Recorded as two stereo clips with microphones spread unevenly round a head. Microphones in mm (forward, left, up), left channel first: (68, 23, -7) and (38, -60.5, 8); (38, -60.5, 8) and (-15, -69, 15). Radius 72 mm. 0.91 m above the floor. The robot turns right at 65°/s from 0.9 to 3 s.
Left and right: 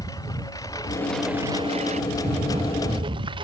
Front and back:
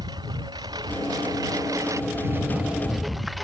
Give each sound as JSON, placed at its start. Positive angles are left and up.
{"t": 0.0, "sound": "a lawn mower", "azimuth_deg": 140}